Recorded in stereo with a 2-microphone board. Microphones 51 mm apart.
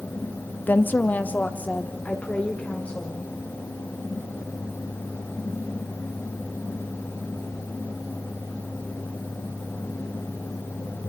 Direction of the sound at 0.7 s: 35° left (ahead or behind).